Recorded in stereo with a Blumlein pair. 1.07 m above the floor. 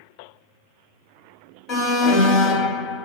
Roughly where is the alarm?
Ahead left.